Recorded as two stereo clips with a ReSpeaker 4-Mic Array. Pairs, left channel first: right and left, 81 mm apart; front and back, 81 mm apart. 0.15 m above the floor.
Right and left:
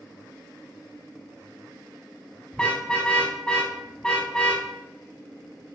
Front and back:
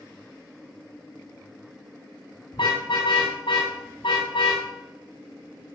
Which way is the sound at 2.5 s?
15° right.